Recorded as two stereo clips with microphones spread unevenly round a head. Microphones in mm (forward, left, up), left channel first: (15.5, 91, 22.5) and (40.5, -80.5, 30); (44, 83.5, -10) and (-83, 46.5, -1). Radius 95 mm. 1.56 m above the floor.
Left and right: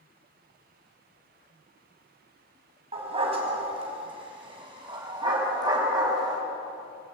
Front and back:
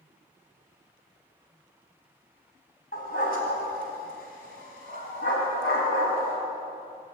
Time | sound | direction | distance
2.9 | a dog barking | 25° right | 4.5 m